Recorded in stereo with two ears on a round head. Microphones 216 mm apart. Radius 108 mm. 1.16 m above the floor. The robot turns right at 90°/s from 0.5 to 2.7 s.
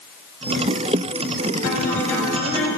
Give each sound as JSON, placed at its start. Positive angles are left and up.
{"t": 1.6, "sound": "a guitar", "azimuth_deg": 135, "distance_m": 5.0}